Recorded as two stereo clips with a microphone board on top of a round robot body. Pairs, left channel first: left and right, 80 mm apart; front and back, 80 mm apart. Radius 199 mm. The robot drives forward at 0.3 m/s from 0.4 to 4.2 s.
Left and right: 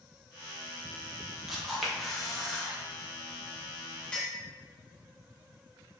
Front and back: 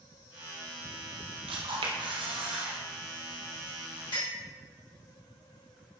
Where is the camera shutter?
Straight behind, 0.6 m.